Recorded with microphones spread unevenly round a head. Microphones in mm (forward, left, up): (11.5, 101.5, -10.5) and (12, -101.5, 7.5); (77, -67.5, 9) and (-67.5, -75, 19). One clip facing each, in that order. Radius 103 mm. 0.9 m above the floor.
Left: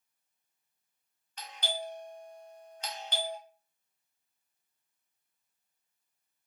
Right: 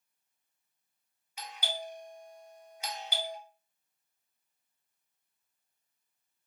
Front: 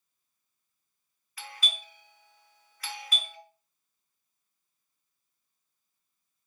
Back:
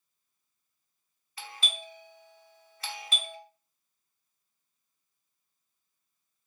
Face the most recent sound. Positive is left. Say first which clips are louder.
# left 2 dB, back 1 dB
turn(degrees=-170)